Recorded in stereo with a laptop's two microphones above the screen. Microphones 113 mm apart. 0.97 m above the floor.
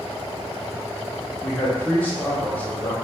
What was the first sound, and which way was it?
A man speaking, 15° left (ahead or behind).